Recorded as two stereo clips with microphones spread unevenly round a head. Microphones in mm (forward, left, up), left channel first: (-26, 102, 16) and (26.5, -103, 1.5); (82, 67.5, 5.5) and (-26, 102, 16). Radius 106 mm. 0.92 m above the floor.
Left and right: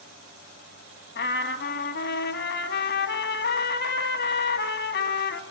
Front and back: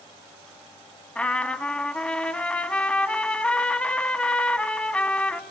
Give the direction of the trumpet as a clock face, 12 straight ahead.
10 o'clock.